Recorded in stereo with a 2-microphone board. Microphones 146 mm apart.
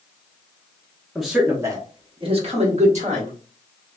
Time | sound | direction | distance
1.1 | a man speaking | centre (ahead or behind) | 0.6 m